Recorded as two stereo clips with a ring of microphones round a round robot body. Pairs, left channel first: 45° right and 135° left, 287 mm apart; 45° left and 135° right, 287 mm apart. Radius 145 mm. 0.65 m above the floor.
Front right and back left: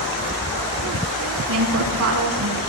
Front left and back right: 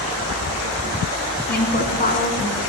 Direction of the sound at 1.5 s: 100° left.